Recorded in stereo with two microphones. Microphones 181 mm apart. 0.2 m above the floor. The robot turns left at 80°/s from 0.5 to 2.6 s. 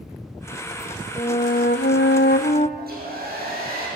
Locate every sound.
1.2 s a flute: 160° left, 1.2 m; by 2.7 s 45° left, 1.2 m
2.8 s a hair dryer: 55° right (ahead or behind), 7.5 m